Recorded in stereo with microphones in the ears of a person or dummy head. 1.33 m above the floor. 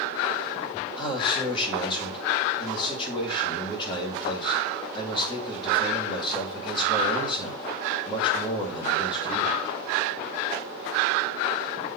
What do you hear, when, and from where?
1.0 s a man speaking: 30° left (ahead or behind), 2 m